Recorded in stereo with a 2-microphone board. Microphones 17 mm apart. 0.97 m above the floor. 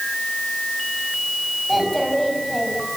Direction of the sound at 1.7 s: 5° left (ahead or behind).